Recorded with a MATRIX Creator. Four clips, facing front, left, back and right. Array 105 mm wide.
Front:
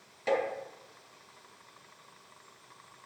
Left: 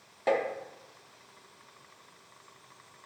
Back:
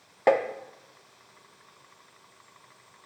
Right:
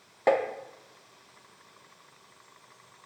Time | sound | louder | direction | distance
0.3 | tapping | right 4 dB, back 7 dB | 160° right | 0.7 m